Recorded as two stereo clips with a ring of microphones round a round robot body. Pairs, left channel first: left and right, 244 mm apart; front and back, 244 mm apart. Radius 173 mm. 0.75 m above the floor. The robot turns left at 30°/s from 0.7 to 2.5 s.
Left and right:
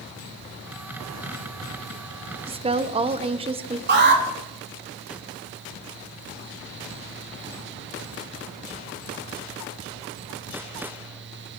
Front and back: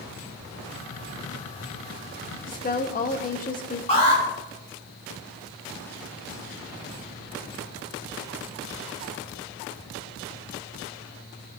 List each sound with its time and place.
2.5 s a woman speaking: 35° right, 0.5 m
3.9 s an alarm: 65° right, 2.0 m